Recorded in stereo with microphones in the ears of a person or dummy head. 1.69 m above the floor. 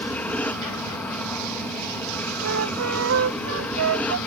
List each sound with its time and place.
0.0 s an aircraft: 5° left (ahead or behind)
2.4 s a flute: 80° right